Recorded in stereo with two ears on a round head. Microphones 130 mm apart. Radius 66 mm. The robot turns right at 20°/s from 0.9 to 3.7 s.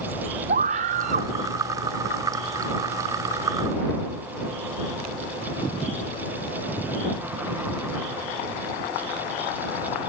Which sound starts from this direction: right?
A scream, at 0.5 s.